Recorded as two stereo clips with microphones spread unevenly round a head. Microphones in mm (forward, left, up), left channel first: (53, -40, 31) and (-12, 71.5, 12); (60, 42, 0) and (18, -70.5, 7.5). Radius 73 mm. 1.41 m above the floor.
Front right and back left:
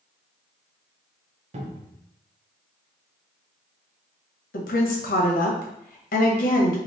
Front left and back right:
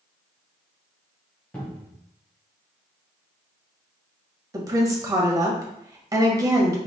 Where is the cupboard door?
145° left, 0.9 m.